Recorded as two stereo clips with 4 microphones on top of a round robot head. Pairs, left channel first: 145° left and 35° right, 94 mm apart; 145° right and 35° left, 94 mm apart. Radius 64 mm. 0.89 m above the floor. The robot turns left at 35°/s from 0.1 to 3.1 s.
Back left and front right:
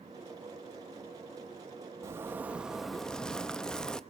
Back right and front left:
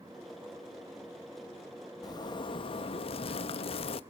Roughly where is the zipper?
Right.